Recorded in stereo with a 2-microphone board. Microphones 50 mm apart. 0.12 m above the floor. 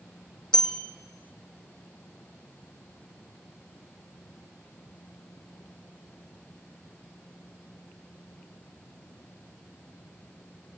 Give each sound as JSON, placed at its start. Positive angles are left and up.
{"t": 0.5, "sound": "a bell", "side_deg": 15, "distance_m": 1.8}